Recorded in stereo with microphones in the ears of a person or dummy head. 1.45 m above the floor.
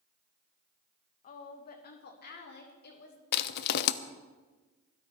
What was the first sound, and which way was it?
A woman speaking, 40° left (ahead or behind).